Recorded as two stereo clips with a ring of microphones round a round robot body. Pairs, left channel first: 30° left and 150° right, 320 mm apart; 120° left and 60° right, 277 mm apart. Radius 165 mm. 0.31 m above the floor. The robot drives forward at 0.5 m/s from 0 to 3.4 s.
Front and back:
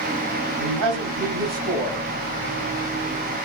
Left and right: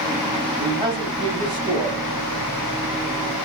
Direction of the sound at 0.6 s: 145° right.